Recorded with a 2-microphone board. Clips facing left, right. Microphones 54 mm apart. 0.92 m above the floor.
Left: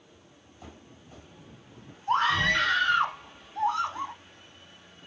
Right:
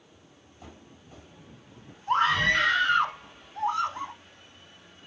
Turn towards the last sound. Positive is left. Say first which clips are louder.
# right 1 dB
turn(degrees=-20)  # may be behind; listen again after turning